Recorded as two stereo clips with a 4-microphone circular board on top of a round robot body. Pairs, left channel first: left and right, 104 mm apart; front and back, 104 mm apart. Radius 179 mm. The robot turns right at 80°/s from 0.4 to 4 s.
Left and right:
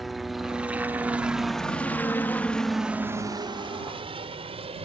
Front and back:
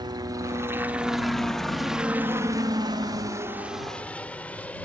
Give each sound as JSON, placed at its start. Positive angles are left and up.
{"t": 0.0, "sound": "a helicopter", "azimuth_deg": 180}